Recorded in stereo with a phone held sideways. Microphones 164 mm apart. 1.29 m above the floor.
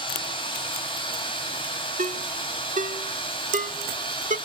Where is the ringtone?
50° right (ahead or behind), 1.4 m.